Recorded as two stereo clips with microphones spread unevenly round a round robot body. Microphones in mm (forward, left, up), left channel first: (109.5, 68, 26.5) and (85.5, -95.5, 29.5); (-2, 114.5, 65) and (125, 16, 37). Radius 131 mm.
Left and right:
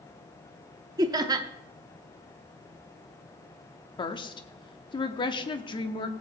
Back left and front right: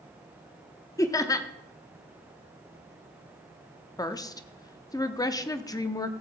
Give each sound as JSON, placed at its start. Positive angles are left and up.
{"t": 1.0, "sound": "laughter", "azimuth_deg": -150, "distance_m": 0.7}
{"t": 4.0, "sound": "a woman speaking", "azimuth_deg": 75, "distance_m": 0.9}